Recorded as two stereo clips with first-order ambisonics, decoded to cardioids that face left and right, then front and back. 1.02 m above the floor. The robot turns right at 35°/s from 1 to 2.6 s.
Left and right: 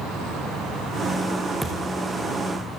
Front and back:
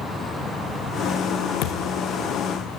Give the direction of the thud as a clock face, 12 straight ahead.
12 o'clock.